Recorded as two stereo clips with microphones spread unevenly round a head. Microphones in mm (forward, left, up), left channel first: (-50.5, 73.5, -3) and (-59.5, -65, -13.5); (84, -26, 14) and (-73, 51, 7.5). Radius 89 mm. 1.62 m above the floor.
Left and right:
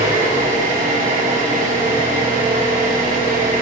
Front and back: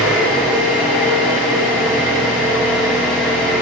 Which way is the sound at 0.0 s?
120° right.